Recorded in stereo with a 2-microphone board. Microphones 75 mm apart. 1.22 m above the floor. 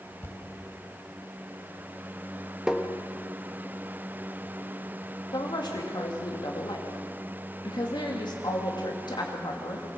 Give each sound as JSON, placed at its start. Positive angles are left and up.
{"t": 0.2, "sound": "a thud", "side_deg": 30, "distance_m": 2.5}
{"t": 2.7, "sound": "tapping", "side_deg": -10, "distance_m": 1.3}
{"t": 5.3, "sound": "a woman speaking", "side_deg": 70, "distance_m": 2.5}